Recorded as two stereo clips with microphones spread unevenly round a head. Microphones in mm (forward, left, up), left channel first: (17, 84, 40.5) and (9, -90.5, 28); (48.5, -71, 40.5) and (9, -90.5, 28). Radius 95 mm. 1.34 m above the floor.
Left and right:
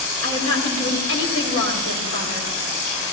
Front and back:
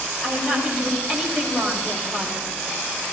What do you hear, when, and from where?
0.2 s a woman speaking: 95° left, 4 m